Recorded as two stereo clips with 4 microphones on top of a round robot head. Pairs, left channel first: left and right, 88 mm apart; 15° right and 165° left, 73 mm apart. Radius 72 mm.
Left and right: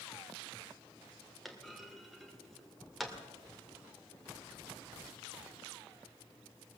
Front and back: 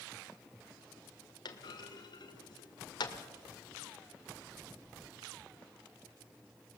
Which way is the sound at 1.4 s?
Straight ahead.